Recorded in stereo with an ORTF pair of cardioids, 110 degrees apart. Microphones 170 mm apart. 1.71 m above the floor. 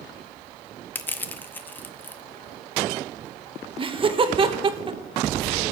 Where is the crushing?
10° left, 1.0 m.